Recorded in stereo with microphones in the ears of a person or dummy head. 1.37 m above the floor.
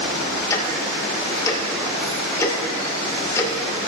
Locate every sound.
0.5 s ticking: 20° left (ahead or behind), 1.4 m